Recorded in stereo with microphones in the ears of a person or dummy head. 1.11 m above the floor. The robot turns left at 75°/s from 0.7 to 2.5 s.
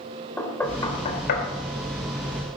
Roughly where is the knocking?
Centre.